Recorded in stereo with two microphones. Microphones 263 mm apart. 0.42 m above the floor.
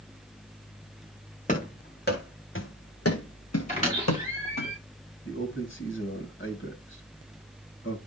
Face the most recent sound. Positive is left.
turn(degrees=45)  # may be behind; listen again after turning